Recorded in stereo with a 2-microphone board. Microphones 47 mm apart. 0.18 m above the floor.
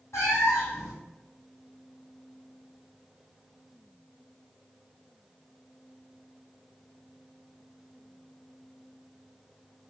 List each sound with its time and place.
0.1 s a cat meowing: 70° left (ahead or behind), 1.2 m